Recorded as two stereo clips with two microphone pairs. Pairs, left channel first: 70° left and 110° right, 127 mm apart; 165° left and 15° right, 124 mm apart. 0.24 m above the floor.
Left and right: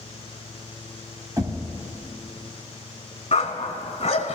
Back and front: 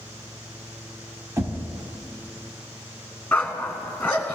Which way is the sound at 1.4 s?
65° right.